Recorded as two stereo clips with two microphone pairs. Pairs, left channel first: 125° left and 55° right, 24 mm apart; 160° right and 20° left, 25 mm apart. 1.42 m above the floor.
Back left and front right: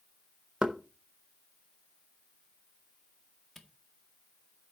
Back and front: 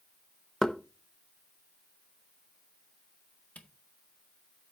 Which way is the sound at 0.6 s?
85° right.